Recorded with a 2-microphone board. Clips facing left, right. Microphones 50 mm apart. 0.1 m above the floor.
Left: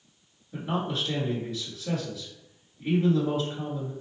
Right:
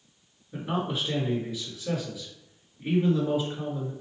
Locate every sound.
0.5 s a man speaking: 10° right (ahead or behind), 1.5 m